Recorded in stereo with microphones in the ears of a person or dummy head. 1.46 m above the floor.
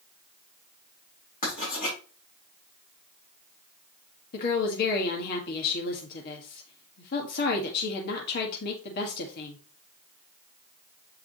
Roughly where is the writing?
Left.